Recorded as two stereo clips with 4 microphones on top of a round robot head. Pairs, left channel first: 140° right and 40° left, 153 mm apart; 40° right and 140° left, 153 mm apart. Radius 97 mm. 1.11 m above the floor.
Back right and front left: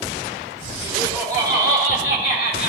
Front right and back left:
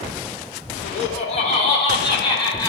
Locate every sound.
0.8 s laughter: 85° right, 4 m; by 2.7 s 110° right, 5 m